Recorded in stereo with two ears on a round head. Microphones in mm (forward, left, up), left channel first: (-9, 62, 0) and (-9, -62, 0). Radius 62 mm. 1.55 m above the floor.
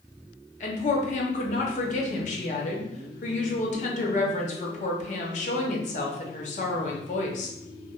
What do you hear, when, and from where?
0.6 s a woman speaking: 55° left (ahead or behind), 0.6 m